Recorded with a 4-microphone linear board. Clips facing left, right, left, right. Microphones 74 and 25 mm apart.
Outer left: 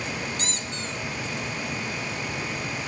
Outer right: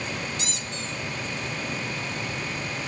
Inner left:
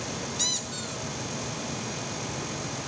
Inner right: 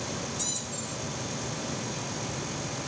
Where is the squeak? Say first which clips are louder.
Outer left 1 dB, inner left 5 dB; 45° left (ahead or behind), 1.0 m.